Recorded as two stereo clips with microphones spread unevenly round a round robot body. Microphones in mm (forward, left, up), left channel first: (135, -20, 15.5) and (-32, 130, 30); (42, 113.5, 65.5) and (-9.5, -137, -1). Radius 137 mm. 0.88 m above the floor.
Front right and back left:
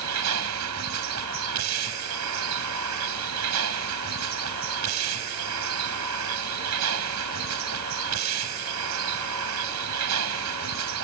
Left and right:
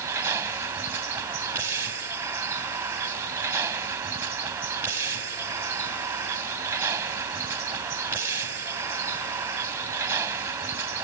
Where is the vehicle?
175° left.